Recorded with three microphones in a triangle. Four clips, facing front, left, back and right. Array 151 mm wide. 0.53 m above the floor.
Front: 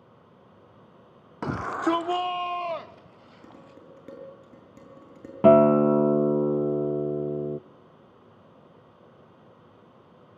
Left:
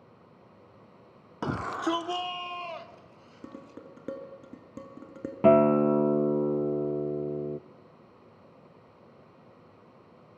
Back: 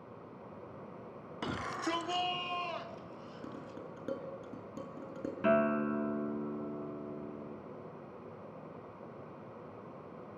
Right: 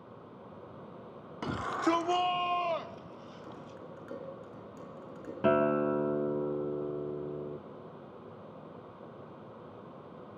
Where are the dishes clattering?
105° left, 5.5 m.